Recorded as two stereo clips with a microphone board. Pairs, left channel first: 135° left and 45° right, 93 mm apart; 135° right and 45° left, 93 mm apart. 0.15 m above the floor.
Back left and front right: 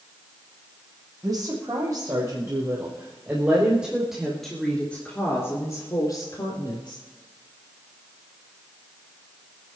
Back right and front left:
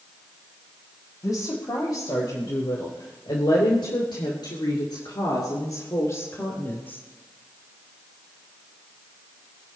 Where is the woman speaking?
95° right, 6 m; by 7.0 s 155° left, 4 m.